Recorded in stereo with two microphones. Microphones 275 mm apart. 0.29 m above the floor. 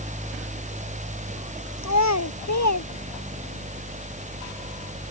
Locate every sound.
1.8 s a child speaking: 75° left (ahead or behind); by 3.6 s 80° left